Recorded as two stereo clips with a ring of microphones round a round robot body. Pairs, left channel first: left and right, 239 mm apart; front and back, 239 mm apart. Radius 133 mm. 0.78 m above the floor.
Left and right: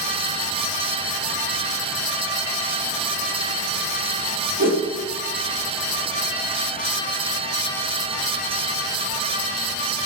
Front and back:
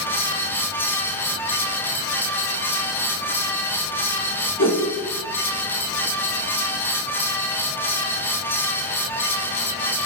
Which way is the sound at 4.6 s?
30° right.